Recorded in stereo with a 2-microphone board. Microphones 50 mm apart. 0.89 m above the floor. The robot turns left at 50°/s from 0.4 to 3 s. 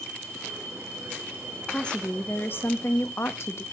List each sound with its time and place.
1.7 s a woman speaking: 170° left, 0.9 m; by 3.6 s 105° left, 0.9 m